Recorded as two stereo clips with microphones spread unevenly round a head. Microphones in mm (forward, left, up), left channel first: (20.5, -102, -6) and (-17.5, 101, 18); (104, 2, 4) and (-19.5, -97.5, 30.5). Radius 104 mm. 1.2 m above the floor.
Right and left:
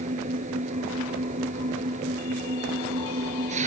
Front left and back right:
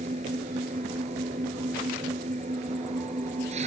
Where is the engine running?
160° left.